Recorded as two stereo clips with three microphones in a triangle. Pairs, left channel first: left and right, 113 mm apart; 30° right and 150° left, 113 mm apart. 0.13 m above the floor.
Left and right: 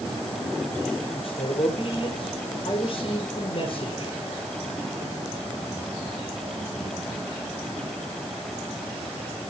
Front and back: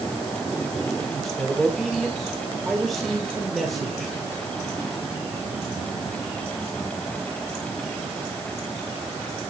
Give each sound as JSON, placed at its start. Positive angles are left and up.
{"t": 1.1, "sound": "a man speaking", "azimuth_deg": 60, "distance_m": 3.0}